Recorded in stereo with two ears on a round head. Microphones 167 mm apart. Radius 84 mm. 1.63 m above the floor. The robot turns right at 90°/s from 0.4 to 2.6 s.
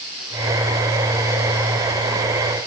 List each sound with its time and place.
Only background noise.